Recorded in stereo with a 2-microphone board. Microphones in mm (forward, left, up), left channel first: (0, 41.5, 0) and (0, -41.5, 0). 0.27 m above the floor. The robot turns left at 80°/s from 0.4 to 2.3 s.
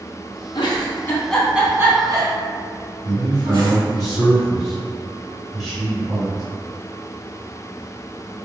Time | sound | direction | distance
0.6 | a giggle | 65° left (ahead or behind) | 0.6 m
3.0 | a man speaking | 10° right (ahead or behind) | 1.4 m